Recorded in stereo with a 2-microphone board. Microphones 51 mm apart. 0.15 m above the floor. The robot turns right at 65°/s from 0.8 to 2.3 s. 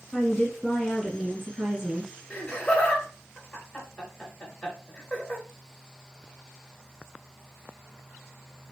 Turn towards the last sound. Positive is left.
turn(degrees=10)  # may be behind; listen again after turning